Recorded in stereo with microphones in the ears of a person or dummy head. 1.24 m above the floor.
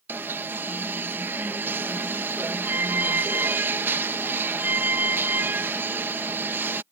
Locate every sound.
0.1 s an alarm: 15° right (ahead or behind)